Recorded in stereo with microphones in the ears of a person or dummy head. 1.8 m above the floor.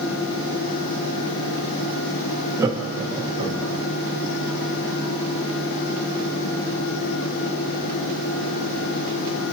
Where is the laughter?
15° right (ahead or behind), 0.5 m; by 3.8 s 35° right (ahead or behind), 1.3 m.